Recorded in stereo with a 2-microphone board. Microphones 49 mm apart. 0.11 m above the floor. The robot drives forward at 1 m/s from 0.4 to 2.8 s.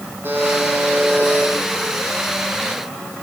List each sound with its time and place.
0.2 s a buzzer: 45° right (ahead or behind), 4 m; by 1.5 s 35° right (ahead or behind), 5 m